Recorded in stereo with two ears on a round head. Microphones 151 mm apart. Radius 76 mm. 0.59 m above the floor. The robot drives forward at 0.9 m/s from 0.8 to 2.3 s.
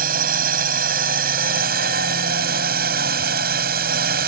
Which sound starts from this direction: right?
A drone, at 0.0 s.